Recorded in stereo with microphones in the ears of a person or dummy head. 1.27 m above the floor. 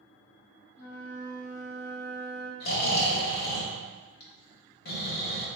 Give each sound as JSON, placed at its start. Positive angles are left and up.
{"t": 0.8, "sound": "a flute", "side_deg": 60, "distance_m": 0.8}
{"t": 2.6, "sound": "snoring", "side_deg": 60, "distance_m": 0.7}